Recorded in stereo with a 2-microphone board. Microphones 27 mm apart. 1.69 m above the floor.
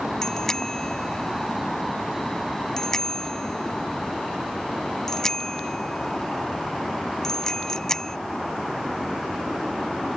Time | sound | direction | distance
0.2 | a bicycle bell | 15° left (ahead or behind) | ?